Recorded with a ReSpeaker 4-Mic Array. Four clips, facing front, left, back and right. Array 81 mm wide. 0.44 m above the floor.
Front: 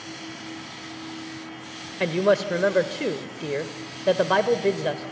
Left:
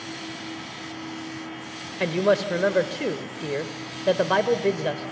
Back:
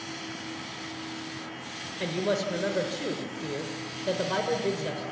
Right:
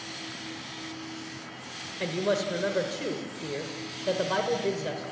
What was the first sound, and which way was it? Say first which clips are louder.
A woman speaking: left 6 dB, front 7 dB; 40° left.